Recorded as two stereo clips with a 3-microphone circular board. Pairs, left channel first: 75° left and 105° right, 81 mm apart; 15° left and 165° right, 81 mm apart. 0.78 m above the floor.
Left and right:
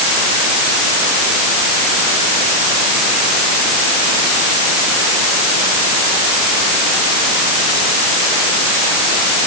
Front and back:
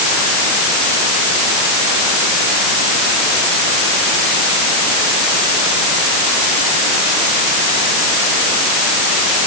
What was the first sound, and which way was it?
Only background noise.